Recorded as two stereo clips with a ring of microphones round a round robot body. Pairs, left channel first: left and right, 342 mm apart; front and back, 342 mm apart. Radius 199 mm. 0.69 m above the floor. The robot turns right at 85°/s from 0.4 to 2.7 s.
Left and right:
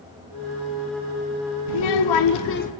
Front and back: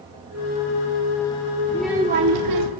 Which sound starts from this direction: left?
A child speaking, at 1.7 s.